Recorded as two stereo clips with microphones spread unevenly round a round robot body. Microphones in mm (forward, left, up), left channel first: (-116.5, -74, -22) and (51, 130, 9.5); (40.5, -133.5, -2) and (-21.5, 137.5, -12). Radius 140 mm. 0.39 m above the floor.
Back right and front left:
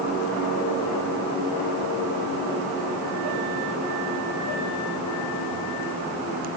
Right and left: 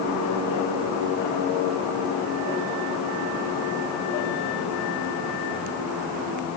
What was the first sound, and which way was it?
Only background noise.